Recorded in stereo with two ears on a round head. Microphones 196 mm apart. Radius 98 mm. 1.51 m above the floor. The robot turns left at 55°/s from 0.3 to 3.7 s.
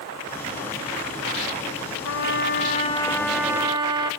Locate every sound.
2.0 s a trumpet: 70° left, 1.2 m; by 4.1 s 20° right, 1.2 m